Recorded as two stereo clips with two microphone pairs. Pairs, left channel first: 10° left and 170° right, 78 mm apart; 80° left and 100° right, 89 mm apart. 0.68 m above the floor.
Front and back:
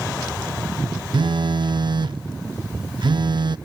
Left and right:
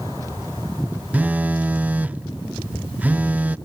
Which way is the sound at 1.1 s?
170° right.